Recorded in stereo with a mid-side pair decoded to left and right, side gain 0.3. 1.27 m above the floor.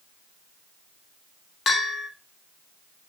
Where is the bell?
70° left, 0.9 m.